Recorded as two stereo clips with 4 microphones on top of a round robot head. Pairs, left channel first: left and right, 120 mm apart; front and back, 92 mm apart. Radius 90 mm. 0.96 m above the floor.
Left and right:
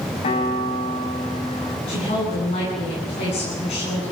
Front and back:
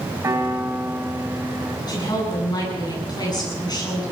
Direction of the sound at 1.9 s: 40° left.